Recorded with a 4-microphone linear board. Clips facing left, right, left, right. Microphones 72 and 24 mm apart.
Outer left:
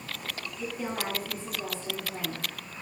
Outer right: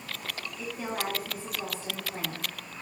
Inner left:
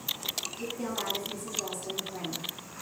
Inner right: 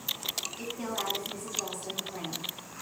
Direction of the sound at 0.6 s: 30° right (ahead or behind).